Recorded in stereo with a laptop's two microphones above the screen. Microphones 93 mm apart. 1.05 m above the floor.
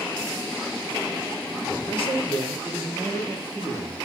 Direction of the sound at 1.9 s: 65° left (ahead or behind).